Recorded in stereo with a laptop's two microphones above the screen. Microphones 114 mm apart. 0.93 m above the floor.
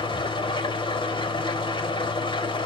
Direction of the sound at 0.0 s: 45° left (ahead or behind).